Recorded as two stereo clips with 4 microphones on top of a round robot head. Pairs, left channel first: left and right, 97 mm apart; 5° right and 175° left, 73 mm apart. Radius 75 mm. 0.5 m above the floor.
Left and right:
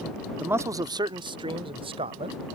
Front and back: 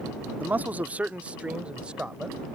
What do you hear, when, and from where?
0.4 s a man speaking: 150° right; by 2.5 s 105° right